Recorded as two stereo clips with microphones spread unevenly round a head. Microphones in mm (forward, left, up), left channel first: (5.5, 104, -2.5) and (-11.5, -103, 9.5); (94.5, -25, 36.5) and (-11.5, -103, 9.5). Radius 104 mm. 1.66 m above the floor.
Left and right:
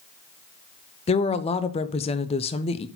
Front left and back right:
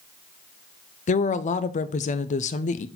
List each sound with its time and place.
1.1 s a woman speaking: 20° left, 0.6 m